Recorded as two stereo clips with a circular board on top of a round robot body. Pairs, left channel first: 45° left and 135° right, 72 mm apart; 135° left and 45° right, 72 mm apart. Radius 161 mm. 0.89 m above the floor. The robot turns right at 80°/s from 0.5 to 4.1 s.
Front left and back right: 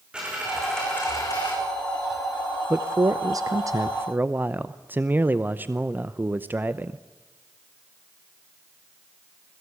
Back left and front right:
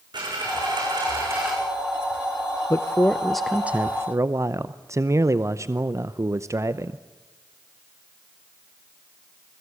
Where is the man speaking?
170° left, 1.0 m; by 7.0 s 80° right, 1.0 m.